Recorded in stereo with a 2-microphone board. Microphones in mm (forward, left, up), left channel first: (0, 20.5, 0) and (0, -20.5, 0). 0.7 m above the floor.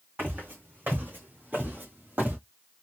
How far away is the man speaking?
No man speaking in this recording.